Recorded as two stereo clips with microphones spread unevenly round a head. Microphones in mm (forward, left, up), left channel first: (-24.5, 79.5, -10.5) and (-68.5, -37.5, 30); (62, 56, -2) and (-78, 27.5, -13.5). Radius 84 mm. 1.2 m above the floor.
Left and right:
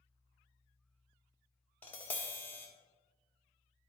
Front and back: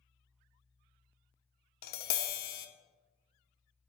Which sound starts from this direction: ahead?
Tapping, at 1.8 s.